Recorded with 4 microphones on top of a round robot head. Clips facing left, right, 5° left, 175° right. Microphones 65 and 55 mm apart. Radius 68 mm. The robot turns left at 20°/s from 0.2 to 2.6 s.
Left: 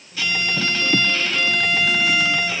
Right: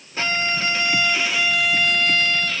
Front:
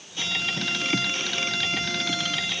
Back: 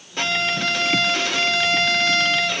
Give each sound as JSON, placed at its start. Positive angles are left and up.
{"t": 0.2, "sound": "a violin", "azimuth_deg": -145, "distance_m": 1.2}